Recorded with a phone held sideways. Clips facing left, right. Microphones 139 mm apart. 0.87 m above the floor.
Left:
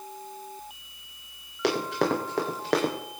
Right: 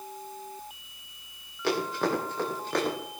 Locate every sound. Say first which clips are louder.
1.6 s running footsteps: left 2 dB; 70° left (ahead or behind), 10 m; by 2.9 s 80° left, 8.5 m